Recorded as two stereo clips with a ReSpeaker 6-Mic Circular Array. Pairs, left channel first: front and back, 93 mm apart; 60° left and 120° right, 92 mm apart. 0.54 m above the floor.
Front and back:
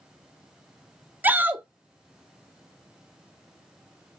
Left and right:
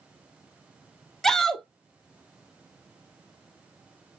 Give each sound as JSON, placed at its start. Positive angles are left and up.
{"t": 1.2, "sound": "a shout", "azimuth_deg": 140, "distance_m": 0.7}